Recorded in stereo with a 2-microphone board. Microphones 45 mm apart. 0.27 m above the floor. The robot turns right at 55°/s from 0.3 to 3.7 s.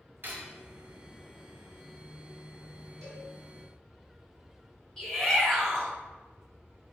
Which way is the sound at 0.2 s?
50° right (ahead or behind).